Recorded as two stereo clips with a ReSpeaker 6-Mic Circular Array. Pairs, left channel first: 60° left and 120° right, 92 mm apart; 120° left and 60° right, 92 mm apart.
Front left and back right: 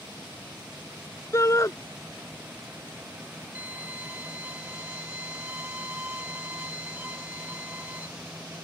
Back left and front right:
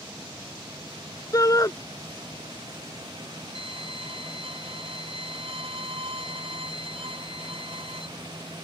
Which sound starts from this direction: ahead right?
A violin, at 3.5 s.